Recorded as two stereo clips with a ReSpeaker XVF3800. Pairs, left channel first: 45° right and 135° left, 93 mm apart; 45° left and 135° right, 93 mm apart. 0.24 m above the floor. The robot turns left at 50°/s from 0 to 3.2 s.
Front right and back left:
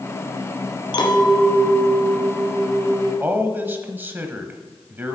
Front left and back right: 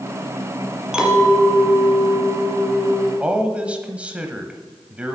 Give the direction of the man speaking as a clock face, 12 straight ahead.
6 o'clock.